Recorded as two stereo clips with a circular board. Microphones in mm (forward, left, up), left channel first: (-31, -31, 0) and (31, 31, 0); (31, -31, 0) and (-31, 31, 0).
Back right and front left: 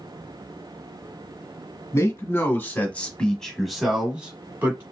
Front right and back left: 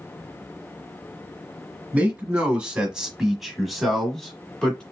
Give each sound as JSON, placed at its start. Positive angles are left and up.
{"t": 1.9, "sound": "a man speaking", "azimuth_deg": -160, "distance_m": 1.6}